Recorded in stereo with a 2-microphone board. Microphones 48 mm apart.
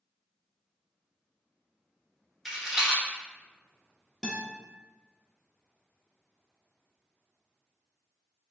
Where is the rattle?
5° right (ahead or behind), 1.0 m.